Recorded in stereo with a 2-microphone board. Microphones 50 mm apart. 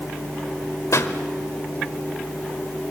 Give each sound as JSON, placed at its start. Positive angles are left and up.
{"t": 0.9, "sound": "a pop", "side_deg": 75, "distance_m": 1.6}